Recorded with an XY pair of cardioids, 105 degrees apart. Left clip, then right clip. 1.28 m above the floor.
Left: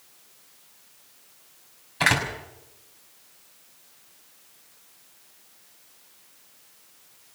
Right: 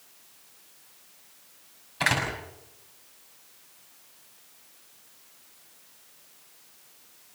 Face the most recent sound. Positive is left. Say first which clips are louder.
# left 3 dB
turn(degrees=20)